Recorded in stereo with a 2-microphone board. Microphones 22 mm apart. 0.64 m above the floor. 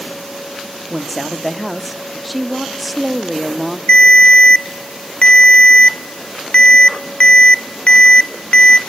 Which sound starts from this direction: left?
A ringtone, at 3.9 s.